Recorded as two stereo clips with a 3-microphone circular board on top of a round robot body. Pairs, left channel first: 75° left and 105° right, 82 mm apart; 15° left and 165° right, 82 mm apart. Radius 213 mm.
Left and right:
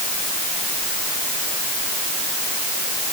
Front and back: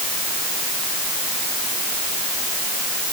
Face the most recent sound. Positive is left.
No sound to turn to.